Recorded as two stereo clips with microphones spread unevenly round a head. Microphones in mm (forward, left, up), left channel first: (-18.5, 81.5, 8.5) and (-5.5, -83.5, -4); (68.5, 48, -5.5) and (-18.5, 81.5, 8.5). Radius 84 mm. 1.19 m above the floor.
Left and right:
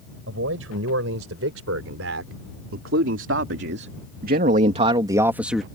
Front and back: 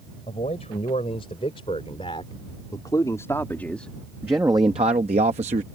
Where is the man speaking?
75° right; by 5.6 s 175° right.